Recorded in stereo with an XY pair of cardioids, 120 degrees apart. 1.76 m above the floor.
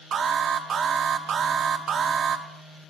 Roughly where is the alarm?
Ahead right.